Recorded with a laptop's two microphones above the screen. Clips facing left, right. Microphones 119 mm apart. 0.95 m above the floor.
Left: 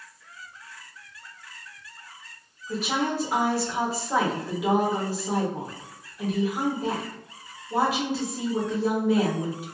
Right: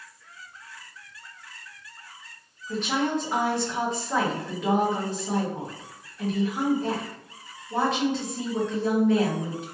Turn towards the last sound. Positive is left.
turn(degrees=10)  # may be behind; listen again after turning